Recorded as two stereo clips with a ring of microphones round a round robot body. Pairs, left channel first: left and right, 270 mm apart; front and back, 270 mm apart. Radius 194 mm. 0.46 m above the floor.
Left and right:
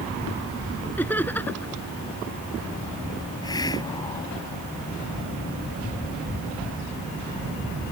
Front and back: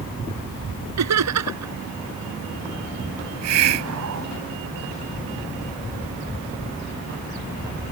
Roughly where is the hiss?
Behind.